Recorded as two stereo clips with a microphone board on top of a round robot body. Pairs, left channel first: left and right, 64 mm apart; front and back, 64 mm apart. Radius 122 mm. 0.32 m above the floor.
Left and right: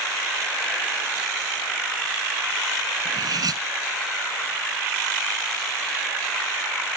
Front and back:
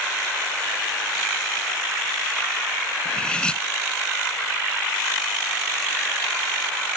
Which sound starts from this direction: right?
Cutlery clinking, at 3.0 s.